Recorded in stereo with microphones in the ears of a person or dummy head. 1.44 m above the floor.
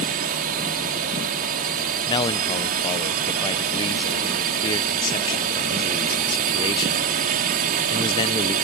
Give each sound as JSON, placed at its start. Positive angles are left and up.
{"t": 0.0, "sound": "a drone", "side_deg": -50}
{"t": 2.1, "sound": "a man speaking", "side_deg": 25}